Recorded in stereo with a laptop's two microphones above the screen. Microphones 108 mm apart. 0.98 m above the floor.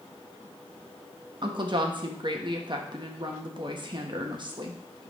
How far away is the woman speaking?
About 1.3 m.